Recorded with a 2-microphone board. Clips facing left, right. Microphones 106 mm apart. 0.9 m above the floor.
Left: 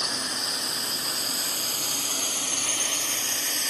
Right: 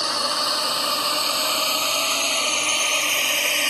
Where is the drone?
75° right (ahead or behind).